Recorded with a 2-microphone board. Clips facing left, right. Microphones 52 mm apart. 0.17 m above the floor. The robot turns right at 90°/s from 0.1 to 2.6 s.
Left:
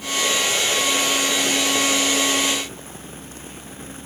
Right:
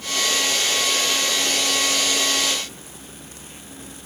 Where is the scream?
No scream in this recording.